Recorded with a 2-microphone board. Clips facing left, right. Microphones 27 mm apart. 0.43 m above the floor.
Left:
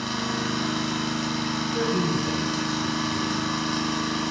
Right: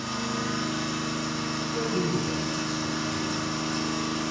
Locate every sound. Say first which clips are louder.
0.0 s an engine running: left 3 dB; 50° left (ahead or behind), 0.9 m
1.7 s a man speaking: left 2 dB; 20° left (ahead or behind), 1.0 m